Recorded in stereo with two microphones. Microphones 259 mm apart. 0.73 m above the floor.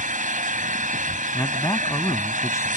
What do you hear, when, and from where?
0.0 s an engine running: 35° right (ahead or behind)
1.3 s a man speaking: 10° left (ahead or behind)